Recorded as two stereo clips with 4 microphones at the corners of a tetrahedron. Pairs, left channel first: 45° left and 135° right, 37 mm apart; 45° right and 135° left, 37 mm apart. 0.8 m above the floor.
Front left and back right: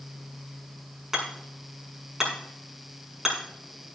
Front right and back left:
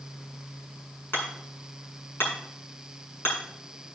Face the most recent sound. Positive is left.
turn(degrees=-55)